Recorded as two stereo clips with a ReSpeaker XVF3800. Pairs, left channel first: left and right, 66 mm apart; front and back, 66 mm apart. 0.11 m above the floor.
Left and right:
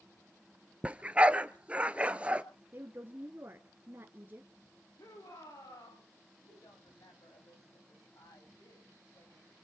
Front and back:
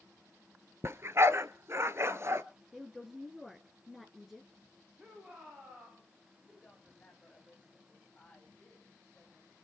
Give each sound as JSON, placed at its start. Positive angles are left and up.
{"t": 0.8, "sound": "a dog barking", "azimuth_deg": -150, "distance_m": 0.9}
{"t": 2.7, "sound": "a woman speaking", "azimuth_deg": -90, "distance_m": 1.4}
{"t": 5.0, "sound": "a shout", "azimuth_deg": 105, "distance_m": 6.5}
{"t": 6.4, "sound": "a woman speaking", "azimuth_deg": 70, "distance_m": 7.5}